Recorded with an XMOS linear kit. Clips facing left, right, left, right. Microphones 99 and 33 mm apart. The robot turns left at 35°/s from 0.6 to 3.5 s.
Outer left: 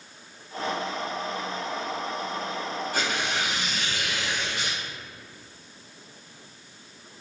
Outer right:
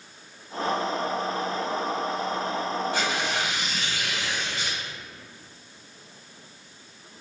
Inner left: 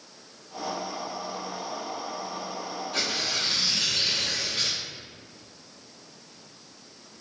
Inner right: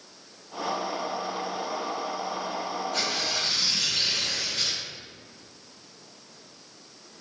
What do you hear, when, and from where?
2.9 s tearing paper: 45° left (ahead or behind), 1.6 m; by 4.8 s 65° left (ahead or behind), 1.6 m